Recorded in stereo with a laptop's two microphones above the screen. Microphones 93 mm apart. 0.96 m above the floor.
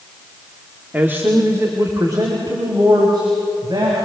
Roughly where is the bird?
No bird in this recording.